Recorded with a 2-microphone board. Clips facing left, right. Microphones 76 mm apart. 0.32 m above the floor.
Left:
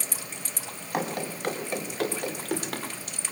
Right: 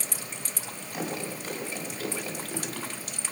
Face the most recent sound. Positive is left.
turn(degrees=70)  # may be behind; listen again after turning